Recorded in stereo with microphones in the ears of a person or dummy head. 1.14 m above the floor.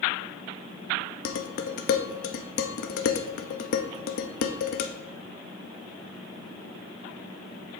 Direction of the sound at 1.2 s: 55° left (ahead or behind).